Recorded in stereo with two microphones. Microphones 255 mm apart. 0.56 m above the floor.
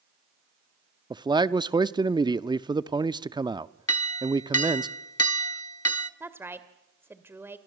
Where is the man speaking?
15° right (ahead or behind), 0.6 m.